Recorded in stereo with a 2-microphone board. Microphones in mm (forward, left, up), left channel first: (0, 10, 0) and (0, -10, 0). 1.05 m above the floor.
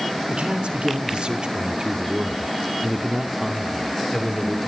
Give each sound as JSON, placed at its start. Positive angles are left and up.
{"t": 0.3, "sound": "a man speaking", "side_deg": -70, "distance_m": 2.5}